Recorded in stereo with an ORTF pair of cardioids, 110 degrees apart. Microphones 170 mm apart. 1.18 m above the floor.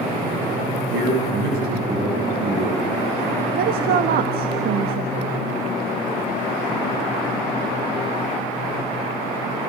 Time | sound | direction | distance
0.9 | a man speaking | 70° right | 9 m
3.5 | a woman speaking | 65° right | 1.6 m